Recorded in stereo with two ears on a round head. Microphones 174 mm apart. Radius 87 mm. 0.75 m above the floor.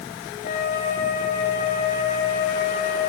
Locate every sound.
0.4 s a flute: 40° left (ahead or behind), 4.5 m